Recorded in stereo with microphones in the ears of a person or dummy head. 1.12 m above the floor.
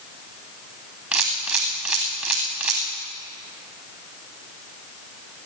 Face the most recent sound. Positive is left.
turn(degrees=0)  # may be behind; listen again after turning